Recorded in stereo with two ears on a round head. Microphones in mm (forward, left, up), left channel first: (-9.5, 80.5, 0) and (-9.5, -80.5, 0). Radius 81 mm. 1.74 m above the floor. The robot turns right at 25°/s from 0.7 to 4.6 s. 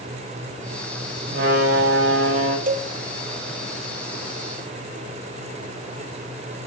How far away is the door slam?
About 5 m.